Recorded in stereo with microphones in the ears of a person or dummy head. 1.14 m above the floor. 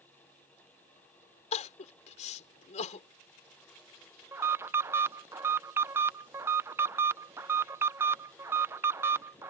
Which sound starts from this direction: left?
Crying, at 1.5 s.